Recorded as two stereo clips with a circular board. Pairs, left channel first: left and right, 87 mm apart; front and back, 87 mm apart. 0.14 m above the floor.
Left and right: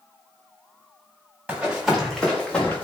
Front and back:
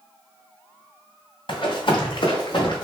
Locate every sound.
1.5 s running footsteps: 15° right, 1.5 m; by 2.9 s 20° left, 1.3 m